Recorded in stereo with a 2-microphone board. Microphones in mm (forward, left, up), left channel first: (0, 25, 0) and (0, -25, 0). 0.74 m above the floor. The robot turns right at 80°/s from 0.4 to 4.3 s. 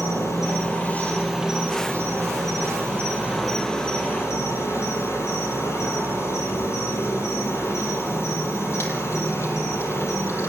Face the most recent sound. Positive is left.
turn(degrees=60)